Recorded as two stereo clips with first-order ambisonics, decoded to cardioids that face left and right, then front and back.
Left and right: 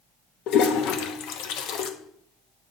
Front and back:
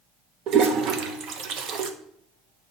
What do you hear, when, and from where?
0.5 s a toilet flushing: 130° left, 0.9 m